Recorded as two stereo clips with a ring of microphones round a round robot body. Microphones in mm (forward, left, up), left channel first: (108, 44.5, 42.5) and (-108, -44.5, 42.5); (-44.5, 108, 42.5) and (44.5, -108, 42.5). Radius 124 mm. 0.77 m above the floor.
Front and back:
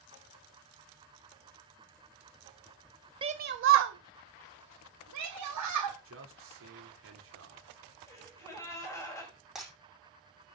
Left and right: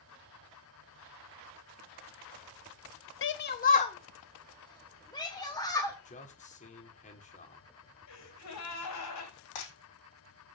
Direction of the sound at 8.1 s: 100° left.